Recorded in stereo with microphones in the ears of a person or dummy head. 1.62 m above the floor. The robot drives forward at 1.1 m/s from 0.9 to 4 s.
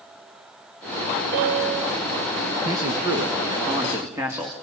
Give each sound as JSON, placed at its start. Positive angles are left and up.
{"t": 1.3, "sound": "a piano", "side_deg": -50, "distance_m": 2.0}
{"t": 2.6, "sound": "a man speaking", "side_deg": -25, "distance_m": 1.4}